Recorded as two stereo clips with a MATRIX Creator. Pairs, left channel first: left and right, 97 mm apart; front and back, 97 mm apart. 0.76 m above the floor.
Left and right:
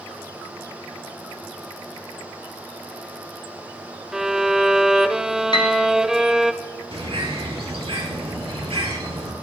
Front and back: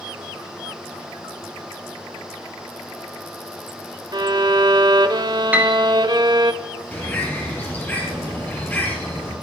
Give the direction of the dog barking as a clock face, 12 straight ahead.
I don't hear a dog barking.